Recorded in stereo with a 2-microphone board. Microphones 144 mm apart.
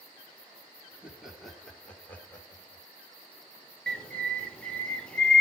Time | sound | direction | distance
0.9 | laughter | 10° right (ahead or behind) | 3 m
3.9 | a bird | 5° left (ahead or behind) | 1.3 m